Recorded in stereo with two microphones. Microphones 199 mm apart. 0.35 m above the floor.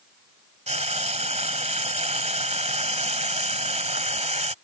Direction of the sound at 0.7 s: 35° right (ahead or behind).